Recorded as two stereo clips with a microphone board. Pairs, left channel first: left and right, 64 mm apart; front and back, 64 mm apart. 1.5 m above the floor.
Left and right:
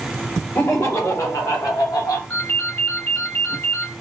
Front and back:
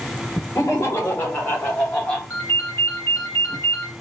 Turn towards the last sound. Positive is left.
turn(degrees=35)